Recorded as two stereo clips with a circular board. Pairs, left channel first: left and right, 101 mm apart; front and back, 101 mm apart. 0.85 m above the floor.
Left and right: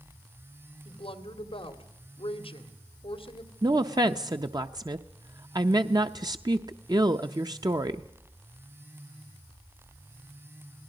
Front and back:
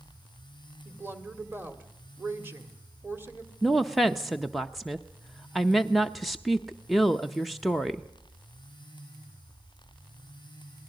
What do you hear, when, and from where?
0.8 s a woman speaking: 110° left, 2 m
3.6 s a woman speaking: 90° right, 0.6 m